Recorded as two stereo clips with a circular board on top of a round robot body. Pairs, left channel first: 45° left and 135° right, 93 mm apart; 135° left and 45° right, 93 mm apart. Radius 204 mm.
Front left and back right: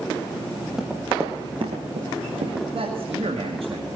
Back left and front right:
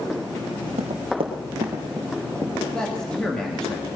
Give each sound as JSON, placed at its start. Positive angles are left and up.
{"t": 0.8, "sound": "running footsteps", "azimuth_deg": -50, "distance_m": 1.7}
{"t": 2.7, "sound": "a man speaking", "azimuth_deg": -140, "distance_m": 2.0}